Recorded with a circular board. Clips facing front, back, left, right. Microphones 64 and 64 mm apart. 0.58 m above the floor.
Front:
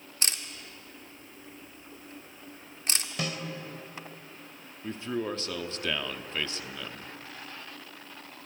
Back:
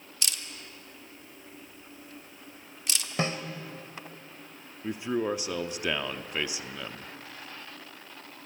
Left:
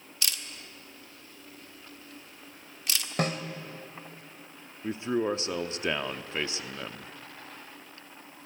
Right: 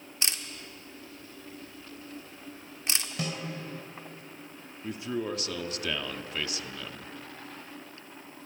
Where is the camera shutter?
40° right, 1.4 m.